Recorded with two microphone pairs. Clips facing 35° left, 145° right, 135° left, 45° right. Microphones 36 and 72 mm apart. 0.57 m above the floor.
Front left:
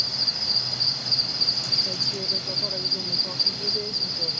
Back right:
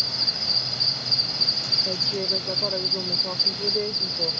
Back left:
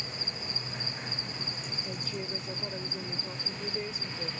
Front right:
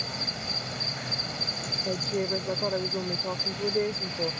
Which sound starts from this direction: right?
A woman speaking, at 1.9 s.